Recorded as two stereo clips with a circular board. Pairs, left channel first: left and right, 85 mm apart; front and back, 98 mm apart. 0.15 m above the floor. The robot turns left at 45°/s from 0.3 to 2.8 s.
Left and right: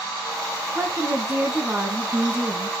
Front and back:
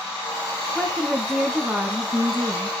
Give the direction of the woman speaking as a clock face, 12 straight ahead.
2 o'clock.